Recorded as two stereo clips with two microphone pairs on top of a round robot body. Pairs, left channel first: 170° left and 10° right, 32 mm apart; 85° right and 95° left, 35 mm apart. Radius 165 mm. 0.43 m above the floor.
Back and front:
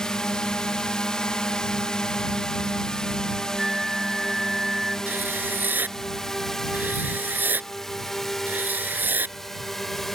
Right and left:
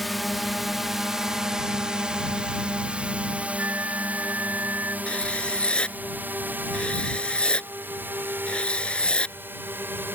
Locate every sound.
0.0 s a drone: 140° right; by 10.2 s 85° left
3.6 s a flute: 70° left
5.1 s writing: 30° right